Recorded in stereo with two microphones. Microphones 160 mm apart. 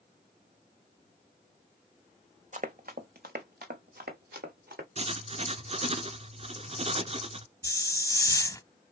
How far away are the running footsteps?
About 0.7 m.